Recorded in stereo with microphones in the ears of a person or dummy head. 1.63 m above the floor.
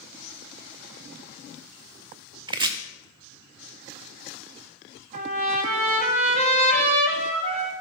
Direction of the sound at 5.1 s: 45° right (ahead or behind).